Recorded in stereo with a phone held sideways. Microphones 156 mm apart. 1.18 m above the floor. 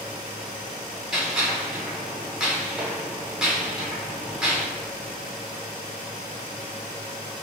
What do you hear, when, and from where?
1.1 s a gunshot: 5° right (ahead or behind), 1.0 m